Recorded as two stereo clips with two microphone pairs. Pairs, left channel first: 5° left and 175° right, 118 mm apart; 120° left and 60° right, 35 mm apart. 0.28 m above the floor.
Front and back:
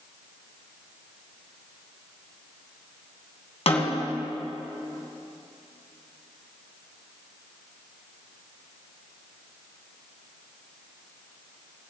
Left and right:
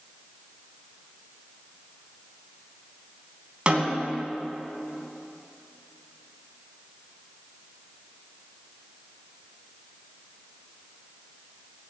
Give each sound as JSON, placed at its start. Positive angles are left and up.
{"t": 3.7, "sound": "a snare drum", "azimuth_deg": -5, "distance_m": 2.5}